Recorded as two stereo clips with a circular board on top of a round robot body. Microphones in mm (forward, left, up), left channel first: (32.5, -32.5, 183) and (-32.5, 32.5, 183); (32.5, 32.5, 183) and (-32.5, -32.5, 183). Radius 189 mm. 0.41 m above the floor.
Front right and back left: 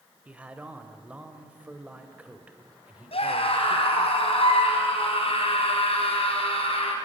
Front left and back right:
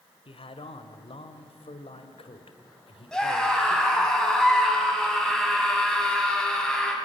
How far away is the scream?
About 5.5 m.